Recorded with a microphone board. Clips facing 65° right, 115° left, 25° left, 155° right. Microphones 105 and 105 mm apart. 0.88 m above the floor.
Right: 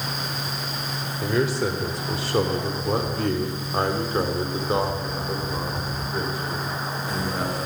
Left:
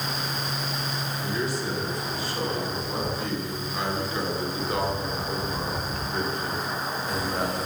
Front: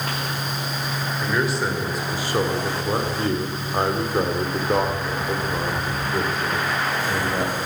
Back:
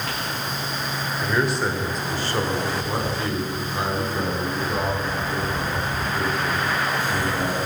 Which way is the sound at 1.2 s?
70° right.